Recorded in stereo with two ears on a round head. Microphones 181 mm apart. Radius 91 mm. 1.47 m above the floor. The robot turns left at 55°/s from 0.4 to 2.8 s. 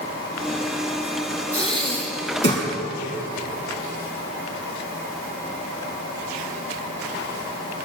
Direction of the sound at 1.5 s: 15° right.